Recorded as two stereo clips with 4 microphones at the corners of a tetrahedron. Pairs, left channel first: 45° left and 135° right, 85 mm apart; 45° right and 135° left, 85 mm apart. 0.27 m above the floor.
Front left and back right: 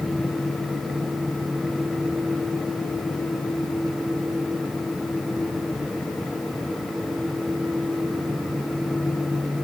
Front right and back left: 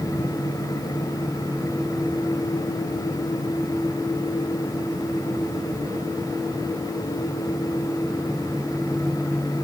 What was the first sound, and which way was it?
Only background noise.